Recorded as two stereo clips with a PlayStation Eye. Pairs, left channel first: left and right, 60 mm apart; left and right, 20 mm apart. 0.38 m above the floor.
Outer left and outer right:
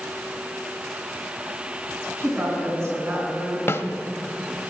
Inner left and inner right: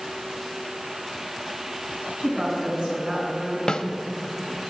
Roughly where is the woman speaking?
Right.